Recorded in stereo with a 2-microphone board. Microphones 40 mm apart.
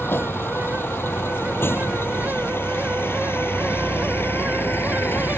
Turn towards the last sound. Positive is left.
turn(degrees=75)  # may be behind; listen again after turning